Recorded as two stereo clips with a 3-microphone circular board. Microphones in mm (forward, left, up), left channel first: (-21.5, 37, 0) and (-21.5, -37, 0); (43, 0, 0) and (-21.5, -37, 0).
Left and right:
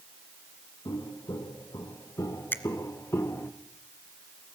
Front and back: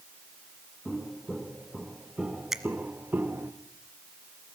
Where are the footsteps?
115° left, 3 m; by 3.5 s 150° left, 2.0 m.